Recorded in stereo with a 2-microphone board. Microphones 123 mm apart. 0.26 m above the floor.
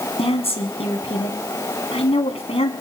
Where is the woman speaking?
55° left (ahead or behind), 2.5 m.